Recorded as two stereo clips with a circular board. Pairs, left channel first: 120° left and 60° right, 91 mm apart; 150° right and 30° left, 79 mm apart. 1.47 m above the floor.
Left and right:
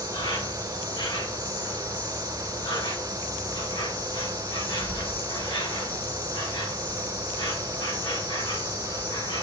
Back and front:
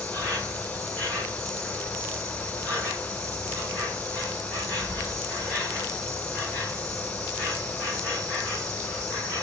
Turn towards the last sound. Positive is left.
turn(degrees=135)